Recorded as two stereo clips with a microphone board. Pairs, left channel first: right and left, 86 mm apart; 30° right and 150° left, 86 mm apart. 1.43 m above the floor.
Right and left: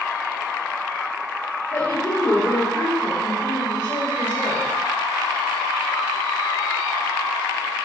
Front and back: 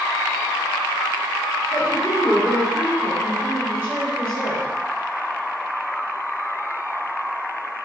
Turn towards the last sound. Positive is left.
turn(degrees=-135)